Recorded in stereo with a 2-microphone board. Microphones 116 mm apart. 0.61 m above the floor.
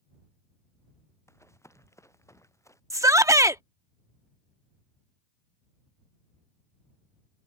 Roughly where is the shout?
Right.